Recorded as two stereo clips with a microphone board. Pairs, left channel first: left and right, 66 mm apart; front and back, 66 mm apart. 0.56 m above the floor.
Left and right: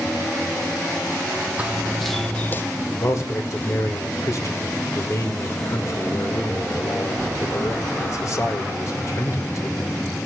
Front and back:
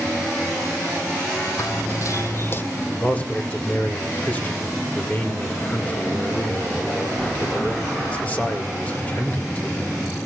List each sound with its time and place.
1.6 s running footsteps: 20° right, 1.1 m; by 2.6 s 45° left, 0.8 m
3.0 s a man speaking: 60° left, 2.0 m